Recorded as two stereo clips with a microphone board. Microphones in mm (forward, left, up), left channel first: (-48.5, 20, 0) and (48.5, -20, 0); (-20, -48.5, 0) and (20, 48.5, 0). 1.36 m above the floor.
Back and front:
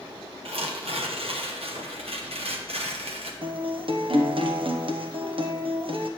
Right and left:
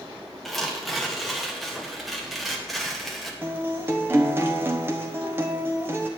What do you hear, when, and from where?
0.5 s tearing paper: 20° right, 1.1 m
3.4 s a guitar: straight ahead, 0.9 m